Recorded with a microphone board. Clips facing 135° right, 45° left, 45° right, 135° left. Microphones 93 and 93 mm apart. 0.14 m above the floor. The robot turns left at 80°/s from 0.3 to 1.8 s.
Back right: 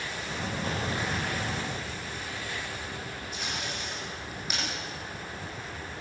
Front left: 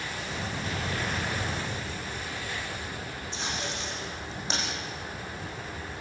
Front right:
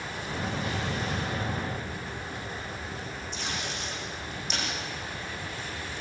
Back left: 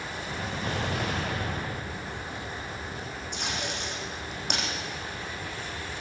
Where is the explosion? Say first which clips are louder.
Back right 2 dB, back left 1 dB; straight behind, 4 m; by 2.9 s 90° left, 4 m.